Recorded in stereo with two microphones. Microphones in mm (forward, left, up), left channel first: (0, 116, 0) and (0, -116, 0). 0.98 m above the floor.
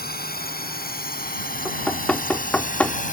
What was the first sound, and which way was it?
A drone, 40° left (ahead or behind).